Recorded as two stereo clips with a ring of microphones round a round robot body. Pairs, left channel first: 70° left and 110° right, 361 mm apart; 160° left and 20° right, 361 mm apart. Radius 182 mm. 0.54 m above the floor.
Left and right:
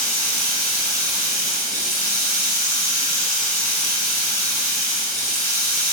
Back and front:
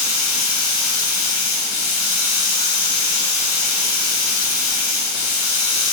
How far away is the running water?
About 0.8 m.